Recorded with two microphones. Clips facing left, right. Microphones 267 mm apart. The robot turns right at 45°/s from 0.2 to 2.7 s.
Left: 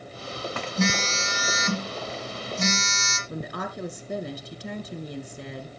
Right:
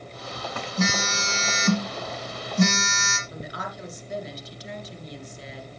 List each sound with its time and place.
0.8 s a phone buzzing: straight behind, 2 m; by 3.2 s 95° right, 2 m
3.3 s a woman speaking: 60° left (ahead or behind), 2 m